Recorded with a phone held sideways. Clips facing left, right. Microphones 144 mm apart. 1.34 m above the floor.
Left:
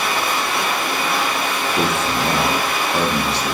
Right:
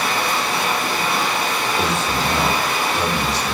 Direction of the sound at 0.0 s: 40° right (ahead or behind).